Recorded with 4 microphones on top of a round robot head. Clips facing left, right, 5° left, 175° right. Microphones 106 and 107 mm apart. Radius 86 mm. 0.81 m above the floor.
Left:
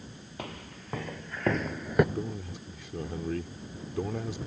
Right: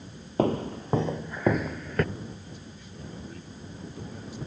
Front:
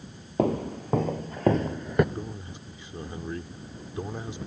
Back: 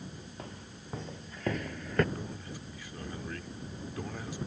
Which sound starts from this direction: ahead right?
Footsteps, at 0.4 s.